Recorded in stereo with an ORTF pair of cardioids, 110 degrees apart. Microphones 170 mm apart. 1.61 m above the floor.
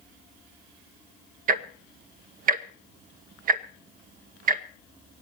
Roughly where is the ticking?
Ahead right.